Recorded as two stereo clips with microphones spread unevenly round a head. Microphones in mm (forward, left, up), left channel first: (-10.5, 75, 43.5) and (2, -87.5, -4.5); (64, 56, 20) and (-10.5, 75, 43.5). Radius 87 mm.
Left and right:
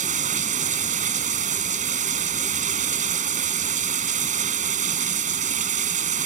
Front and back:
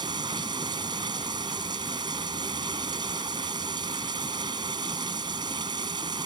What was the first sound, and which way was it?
Running water, 135° right.